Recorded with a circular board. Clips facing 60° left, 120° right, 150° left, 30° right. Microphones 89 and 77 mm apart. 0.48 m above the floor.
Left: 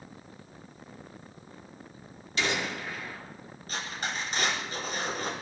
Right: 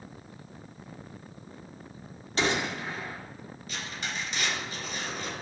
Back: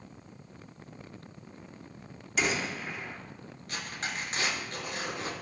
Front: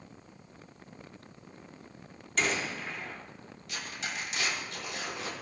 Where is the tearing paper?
105° left, 5.5 m.